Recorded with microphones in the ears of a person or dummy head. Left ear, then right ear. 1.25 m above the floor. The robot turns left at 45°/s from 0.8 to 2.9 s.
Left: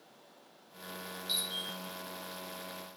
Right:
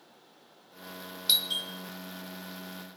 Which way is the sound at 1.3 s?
40° right (ahead or behind).